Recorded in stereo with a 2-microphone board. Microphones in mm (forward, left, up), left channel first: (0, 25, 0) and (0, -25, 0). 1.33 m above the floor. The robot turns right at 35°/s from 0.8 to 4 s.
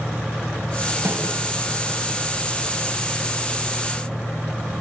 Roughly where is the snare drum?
Right.